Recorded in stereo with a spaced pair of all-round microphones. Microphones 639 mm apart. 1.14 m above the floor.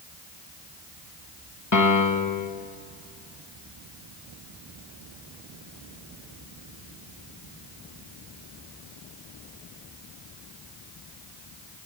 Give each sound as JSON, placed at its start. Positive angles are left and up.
{"t": 1.7, "sound": "a piano", "side_deg": 30, "distance_m": 1.3}